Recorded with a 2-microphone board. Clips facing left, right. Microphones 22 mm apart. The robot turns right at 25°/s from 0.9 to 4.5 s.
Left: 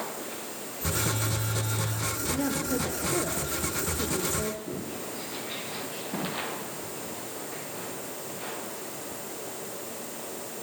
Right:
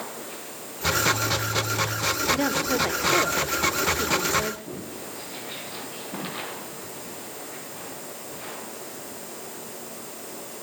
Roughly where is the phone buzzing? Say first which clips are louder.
Right 7 dB; right.